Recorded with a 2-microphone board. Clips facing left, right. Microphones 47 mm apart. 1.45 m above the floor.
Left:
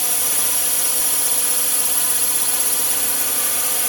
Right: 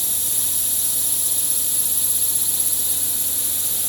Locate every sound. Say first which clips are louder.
0.0 s a drone: left 7 dB; 75° left (ahead or behind)